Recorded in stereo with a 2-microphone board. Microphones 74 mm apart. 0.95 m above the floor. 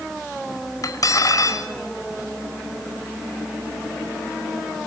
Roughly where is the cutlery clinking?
Left.